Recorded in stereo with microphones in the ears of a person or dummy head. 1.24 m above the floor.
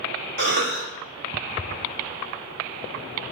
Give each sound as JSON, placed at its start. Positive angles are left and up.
{"t": 0.4, "sound": "a cough", "side_deg": -50, "distance_m": 0.8}